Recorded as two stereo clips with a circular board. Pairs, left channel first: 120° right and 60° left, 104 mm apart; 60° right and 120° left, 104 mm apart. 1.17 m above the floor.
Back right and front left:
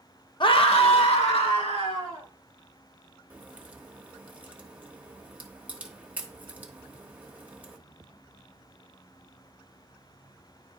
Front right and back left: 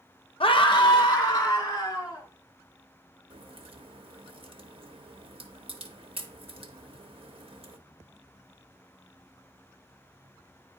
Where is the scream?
80° right, 0.6 m; by 2.3 s 115° right, 3 m.